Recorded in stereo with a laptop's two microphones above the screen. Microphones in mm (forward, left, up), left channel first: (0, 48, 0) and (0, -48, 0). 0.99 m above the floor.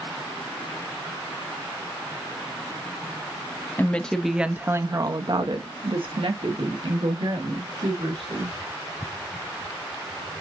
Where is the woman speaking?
20° left (ahead or behind), 0.8 m; by 8.6 s 85° right, 2.5 m.